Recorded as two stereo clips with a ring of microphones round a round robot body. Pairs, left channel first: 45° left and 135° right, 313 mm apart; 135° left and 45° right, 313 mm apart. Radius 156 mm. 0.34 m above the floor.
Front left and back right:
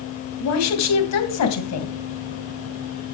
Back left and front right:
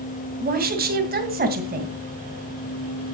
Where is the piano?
No piano in this recording.